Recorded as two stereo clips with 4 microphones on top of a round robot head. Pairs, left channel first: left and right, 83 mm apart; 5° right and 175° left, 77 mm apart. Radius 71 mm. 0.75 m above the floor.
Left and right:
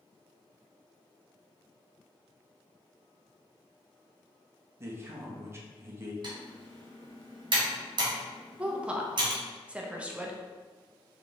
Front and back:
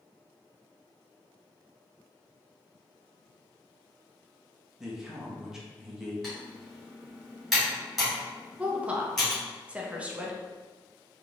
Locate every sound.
4.8 s a man speaking: 110° right, 0.9 m
6.2 s typing on a keyboard: 95° right, 1.9 m
8.6 s a woman speaking: 145° right, 0.7 m